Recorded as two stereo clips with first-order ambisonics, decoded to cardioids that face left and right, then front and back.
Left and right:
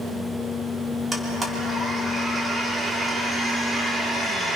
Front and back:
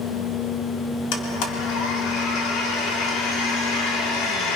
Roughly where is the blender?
Ahead.